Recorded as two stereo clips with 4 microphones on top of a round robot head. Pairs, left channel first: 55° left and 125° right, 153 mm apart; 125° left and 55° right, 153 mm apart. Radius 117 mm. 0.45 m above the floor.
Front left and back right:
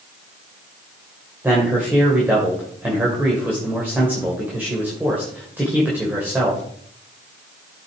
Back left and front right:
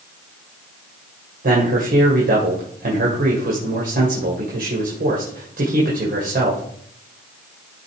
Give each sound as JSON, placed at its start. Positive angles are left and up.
{"t": 1.4, "sound": "a man speaking", "azimuth_deg": -50, "distance_m": 2.5}